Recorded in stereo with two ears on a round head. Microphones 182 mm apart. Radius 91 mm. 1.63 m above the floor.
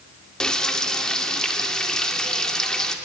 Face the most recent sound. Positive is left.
turn(degrees=5)  # may be behind; listen again after turning